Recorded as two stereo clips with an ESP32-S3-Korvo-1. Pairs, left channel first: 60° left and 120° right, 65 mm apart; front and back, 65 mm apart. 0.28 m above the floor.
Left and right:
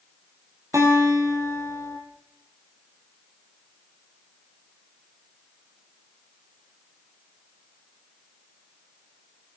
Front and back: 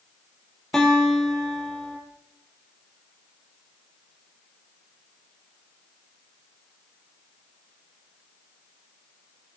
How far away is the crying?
No crying in this recording.